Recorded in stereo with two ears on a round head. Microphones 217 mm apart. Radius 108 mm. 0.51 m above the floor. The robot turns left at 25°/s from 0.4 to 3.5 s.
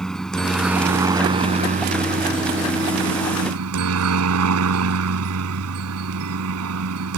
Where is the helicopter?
Straight ahead; by 7.2 s 75° right.